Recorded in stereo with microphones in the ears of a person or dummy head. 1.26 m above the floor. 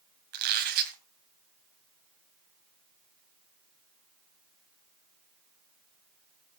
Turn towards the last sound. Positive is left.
turn(degrees=-55)  # may be behind; listen again after turning